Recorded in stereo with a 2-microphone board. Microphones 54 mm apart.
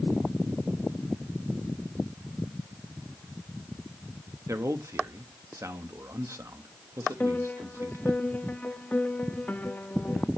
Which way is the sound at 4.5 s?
65° right (ahead or behind).